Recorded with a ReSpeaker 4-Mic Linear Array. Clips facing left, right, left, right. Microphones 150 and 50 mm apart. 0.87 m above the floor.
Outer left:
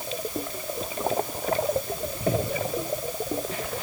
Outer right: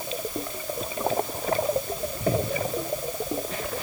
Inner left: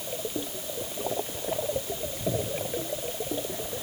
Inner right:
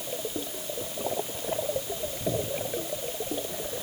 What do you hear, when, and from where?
Only background noise.